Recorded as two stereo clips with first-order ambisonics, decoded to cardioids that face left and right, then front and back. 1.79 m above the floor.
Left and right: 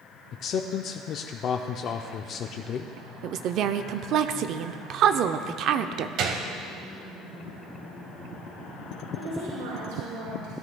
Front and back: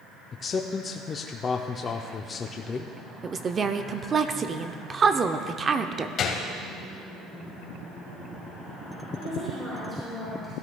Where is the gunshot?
50° right, 1.1 m.